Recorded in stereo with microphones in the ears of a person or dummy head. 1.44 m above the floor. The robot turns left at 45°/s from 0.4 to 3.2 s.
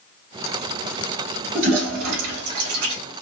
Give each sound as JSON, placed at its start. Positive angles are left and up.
{"t": 1.6, "sound": "a toilet flushing", "side_deg": -45, "distance_m": 2.0}